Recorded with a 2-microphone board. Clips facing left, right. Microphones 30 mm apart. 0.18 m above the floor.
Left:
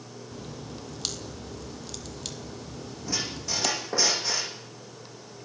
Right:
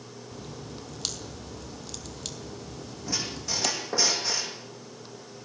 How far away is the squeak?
About 6.5 m.